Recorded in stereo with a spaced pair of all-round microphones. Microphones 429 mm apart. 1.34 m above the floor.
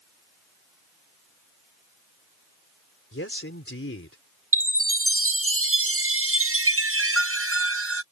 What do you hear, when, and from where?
3.1 s a man speaking: 30° left (ahead or behind)
4.5 s a chime: 35° right (ahead or behind)